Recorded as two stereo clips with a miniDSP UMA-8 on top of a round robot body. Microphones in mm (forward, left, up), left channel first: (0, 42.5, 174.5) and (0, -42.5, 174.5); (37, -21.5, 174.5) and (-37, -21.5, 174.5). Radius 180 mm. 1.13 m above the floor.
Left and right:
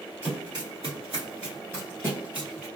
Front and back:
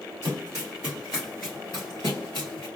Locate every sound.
0.2 s running footsteps: 140° right, 1.4 m; by 2.6 s 5° right, 1.5 m